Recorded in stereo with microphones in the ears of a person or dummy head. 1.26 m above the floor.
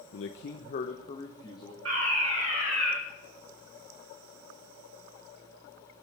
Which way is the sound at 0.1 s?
70° left (ahead or behind).